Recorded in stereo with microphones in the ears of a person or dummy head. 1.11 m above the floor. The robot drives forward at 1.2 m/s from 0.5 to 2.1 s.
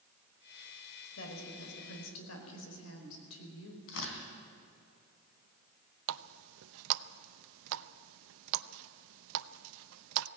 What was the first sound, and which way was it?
A woman speaking, 65° left (ahead or behind).